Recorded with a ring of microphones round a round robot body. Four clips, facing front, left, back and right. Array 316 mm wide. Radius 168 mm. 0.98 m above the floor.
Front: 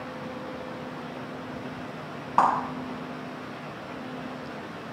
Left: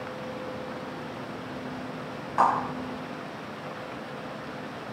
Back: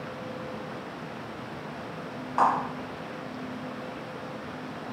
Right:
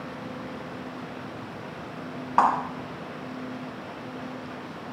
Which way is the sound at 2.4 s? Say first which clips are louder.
Right 2 dB, front 2 dB; 50° right.